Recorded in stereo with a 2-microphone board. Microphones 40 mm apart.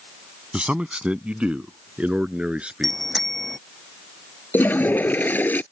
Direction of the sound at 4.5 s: 55° left (ahead or behind).